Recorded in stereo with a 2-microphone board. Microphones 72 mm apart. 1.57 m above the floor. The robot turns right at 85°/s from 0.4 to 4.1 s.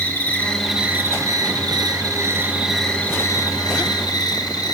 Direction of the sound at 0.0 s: 160° left.